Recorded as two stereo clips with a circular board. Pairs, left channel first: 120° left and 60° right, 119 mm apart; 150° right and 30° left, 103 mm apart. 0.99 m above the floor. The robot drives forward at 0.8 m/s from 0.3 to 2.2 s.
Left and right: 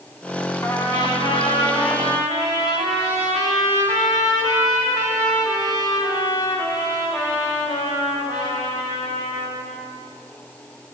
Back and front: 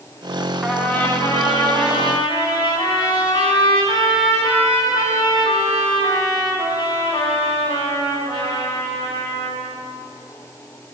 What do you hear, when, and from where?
0.6 s a trumpet: 110° left, 0.5 m; by 9.7 s 170° left, 1.4 m